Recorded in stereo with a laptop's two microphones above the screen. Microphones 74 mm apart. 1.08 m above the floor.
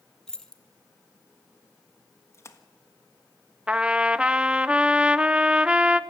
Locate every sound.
0.3 s keys jangling: 5° left (ahead or behind), 1.2 m
2.3 s a splash: 35° left (ahead or behind), 1.5 m
3.7 s a trumpet: 15° right (ahead or behind), 0.5 m